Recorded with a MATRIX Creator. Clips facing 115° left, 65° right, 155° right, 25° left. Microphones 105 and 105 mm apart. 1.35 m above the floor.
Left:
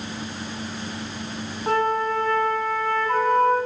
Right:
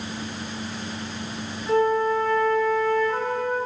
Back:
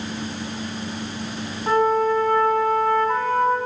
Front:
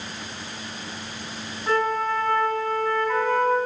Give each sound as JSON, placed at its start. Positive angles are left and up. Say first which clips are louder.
{"t": 1.7, "sound": "a flute", "louder": "right 2 dB, back 5 dB", "azimuth_deg": 140, "distance_m": 6.5}